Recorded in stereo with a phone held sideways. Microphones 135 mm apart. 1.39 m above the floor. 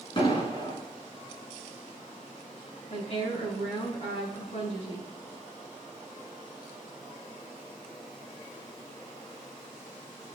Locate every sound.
0.2 s an explosion: 40° left (ahead or behind), 3.5 m
2.9 s a woman speaking: 55° left (ahead or behind), 5.5 m